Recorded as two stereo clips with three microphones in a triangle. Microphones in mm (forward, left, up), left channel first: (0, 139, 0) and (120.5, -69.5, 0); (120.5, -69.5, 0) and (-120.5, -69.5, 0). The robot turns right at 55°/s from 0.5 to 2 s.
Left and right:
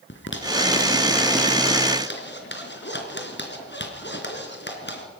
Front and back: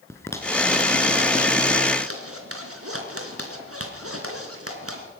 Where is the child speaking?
No child speaking in this recording.